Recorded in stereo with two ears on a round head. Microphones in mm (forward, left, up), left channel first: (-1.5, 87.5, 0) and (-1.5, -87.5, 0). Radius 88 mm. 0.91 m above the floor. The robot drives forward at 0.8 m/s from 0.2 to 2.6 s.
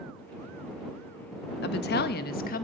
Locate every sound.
1.6 s a woman speaking: 55° left (ahead or behind), 1.4 m; by 2.6 s 45° left (ahead or behind), 1.6 m